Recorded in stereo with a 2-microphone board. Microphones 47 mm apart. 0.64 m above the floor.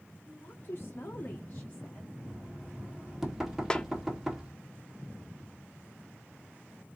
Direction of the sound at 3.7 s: 15° left (ahead or behind).